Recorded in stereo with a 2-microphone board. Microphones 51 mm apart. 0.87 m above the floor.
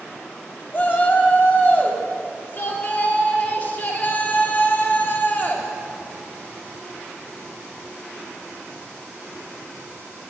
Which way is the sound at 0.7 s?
35° left (ahead or behind).